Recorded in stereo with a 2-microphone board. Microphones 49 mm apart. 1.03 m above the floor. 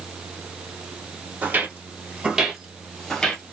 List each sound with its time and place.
1.4 s footsteps: 40° right (ahead or behind), 1.4 m; by 3.4 s 20° left (ahead or behind), 1.2 m